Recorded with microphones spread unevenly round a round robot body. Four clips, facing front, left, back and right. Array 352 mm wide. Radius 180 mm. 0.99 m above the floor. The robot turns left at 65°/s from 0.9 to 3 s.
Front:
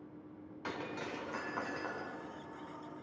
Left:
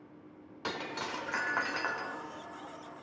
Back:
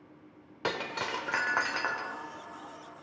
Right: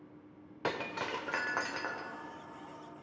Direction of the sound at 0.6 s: 140° right.